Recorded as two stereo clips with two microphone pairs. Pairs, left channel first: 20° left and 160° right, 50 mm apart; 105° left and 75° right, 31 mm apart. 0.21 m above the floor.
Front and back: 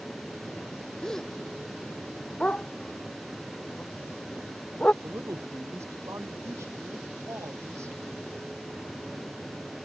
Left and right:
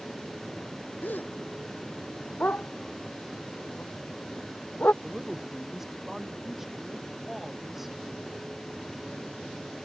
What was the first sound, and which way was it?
A gasp, 100° left.